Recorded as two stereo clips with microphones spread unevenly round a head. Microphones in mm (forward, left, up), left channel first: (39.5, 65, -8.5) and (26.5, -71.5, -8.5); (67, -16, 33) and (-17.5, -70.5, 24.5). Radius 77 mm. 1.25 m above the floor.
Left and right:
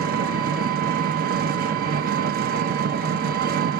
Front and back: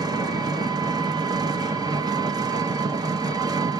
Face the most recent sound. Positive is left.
turn(degrees=-95)